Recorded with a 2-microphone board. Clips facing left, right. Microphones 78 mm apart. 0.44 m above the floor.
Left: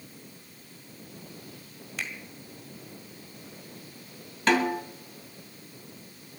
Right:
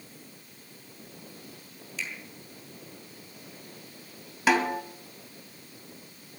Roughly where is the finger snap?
Left.